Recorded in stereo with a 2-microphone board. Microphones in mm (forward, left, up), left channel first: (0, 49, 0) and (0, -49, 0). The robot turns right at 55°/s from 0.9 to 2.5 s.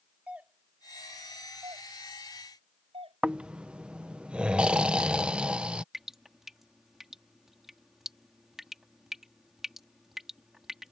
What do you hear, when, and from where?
0.3 s a doorbell: 15° right (ahead or behind); by 3.2 s 80° right
3.2 s snoring: 10° right (ahead or behind)
5.9 s dripping: 5° right (ahead or behind)